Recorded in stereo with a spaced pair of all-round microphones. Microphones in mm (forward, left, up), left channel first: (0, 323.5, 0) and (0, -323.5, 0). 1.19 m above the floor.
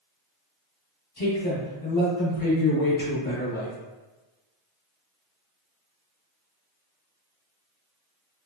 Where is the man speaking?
60° left (ahead or behind), 1.5 m.